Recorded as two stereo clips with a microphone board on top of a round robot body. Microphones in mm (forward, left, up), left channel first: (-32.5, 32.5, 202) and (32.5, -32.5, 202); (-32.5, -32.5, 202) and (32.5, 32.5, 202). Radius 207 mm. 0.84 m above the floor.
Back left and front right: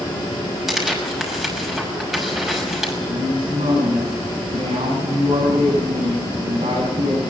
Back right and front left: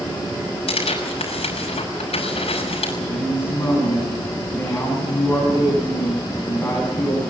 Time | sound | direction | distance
0.7 | tearing paper | 130° right | 6 m
3.1 | a woman speaking | 65° right | 9 m